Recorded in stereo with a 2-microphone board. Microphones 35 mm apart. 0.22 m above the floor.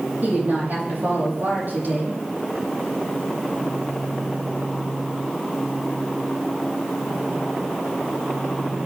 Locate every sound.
0.2 s a woman speaking: 60° right (ahead or behind), 8 m